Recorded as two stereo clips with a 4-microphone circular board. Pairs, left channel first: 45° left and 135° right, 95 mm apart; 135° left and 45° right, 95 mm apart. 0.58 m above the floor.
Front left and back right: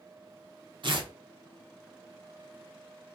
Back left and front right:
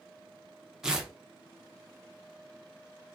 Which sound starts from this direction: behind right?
Tearing paper, at 0.8 s.